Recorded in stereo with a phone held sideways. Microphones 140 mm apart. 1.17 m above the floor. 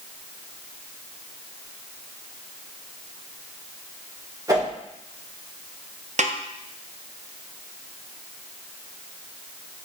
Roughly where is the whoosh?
Right.